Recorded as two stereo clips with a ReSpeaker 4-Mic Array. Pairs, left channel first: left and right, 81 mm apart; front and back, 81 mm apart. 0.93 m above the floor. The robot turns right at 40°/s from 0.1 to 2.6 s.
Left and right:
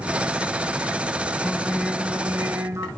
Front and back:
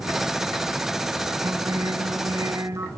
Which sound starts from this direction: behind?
Singing, at 1.4 s.